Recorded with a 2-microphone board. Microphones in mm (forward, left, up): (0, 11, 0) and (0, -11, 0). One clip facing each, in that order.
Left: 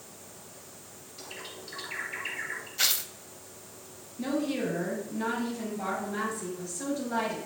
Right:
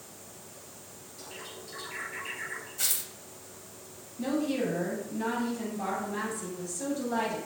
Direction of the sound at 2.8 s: 45° left (ahead or behind).